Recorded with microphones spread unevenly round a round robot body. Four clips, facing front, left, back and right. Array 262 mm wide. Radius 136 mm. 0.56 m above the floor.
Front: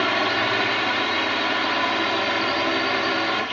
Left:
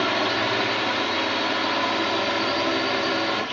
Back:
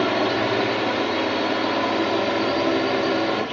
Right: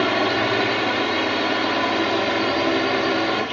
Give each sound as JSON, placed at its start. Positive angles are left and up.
{"t": 0.0, "sound": "a drone", "azimuth_deg": -140}